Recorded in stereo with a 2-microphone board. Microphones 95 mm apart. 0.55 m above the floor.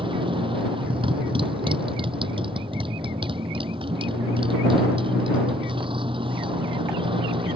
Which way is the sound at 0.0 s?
60° right (ahead or behind).